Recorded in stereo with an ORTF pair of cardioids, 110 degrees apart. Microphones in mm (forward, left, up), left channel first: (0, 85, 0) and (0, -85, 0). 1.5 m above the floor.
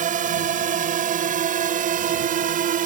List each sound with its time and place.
0.0 s a drone: 50° right; by 2.9 s 55° right